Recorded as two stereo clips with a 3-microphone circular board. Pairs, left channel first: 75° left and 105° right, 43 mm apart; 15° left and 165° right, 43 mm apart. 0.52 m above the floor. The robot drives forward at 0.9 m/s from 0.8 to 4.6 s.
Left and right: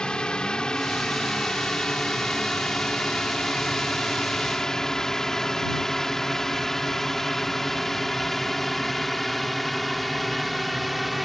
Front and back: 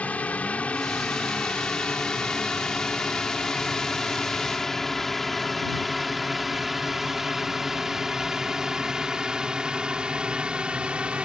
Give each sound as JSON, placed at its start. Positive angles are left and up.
{"t": 0.0, "sound": "a drone", "azimuth_deg": 25}